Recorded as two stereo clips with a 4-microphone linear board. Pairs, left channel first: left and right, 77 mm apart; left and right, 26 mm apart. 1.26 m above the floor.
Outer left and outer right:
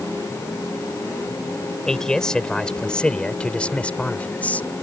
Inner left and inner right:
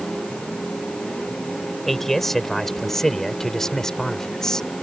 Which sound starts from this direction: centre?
A man speaking, at 1.9 s.